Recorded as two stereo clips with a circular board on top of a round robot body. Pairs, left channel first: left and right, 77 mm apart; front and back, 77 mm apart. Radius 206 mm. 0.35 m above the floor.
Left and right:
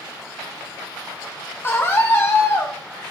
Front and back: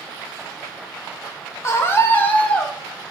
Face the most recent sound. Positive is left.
turn(degrees=70)